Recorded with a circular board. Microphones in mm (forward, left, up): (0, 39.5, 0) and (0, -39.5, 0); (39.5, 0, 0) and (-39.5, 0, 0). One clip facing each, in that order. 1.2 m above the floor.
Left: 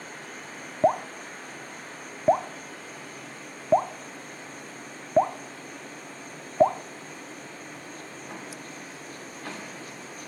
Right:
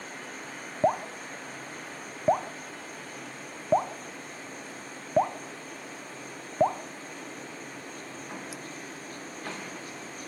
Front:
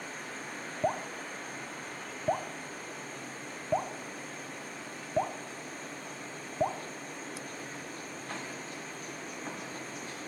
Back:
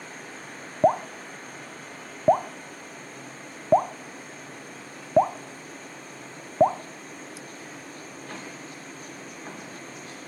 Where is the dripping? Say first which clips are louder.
Left 3 dB, back 11 dB; 170° left, 0.6 m.